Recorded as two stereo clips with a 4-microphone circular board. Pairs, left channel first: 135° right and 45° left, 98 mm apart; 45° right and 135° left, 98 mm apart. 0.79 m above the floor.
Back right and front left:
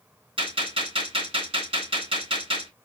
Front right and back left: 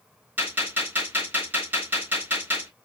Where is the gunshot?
65° left, 3.5 m.